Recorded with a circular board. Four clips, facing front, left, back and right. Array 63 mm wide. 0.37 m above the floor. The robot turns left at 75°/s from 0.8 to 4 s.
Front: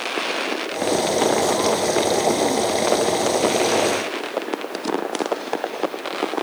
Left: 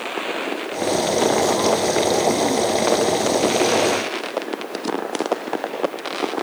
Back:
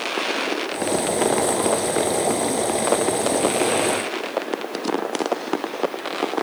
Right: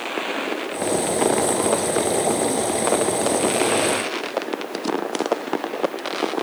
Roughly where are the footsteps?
No footsteps in this recording.